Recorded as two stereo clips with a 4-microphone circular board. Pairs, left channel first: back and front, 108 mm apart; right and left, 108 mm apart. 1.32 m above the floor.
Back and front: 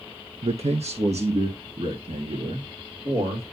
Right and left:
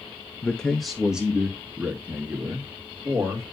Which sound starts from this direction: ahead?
A man speaking, at 0.4 s.